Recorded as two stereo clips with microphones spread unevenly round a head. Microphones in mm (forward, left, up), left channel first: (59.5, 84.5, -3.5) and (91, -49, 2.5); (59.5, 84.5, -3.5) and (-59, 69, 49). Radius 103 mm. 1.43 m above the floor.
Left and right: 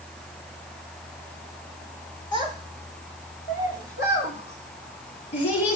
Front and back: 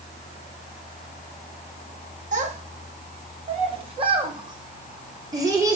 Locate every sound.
2.3 s a child speaking: 175° left, 2 m; by 5.8 s 125° left, 3 m